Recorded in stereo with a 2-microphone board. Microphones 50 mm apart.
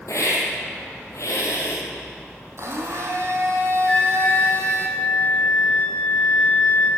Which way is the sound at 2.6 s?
60° right (ahead or behind).